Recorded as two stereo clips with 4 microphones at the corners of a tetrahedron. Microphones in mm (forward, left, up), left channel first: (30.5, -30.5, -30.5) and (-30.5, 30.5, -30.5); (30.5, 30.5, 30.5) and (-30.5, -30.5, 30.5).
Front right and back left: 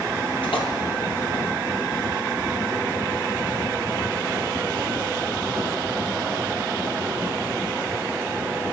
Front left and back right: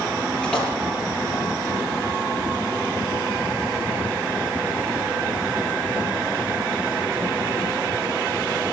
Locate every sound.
0.4 s a splash: 30° right, 6.5 m